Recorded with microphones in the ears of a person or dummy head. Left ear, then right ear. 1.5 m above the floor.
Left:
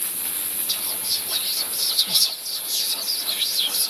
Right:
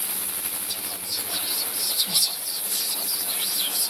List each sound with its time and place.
0.7 s whispering: 40° left (ahead or behind), 1.9 m